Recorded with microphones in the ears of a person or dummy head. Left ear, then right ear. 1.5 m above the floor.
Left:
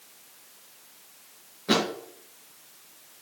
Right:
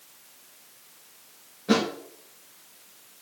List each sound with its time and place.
1.7 s a thud: 15° left (ahead or behind), 3 m